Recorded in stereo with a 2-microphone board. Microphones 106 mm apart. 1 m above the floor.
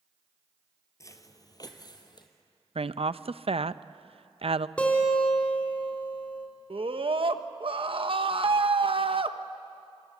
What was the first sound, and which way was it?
Footsteps, 30° left (ahead or behind).